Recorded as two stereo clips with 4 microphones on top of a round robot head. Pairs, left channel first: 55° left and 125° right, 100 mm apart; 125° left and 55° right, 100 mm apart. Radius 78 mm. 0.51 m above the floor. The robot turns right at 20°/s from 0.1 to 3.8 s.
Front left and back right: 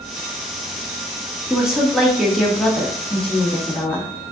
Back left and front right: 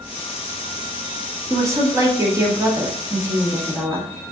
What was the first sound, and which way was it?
A woman speaking, 50° right.